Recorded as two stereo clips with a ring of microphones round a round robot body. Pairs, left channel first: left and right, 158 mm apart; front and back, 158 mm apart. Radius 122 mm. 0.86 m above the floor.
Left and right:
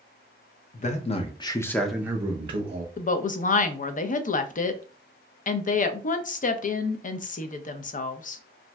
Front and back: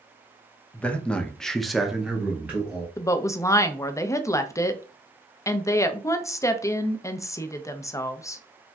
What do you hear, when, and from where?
0.7 s a man speaking: 80° left, 0.7 m; by 2.9 s 105° right, 0.7 m
3.0 s a woman speaking: 70° left, 0.5 m